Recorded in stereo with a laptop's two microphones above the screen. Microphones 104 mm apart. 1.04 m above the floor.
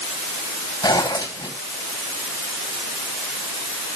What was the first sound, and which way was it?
A zipper, 50° left (ahead or behind).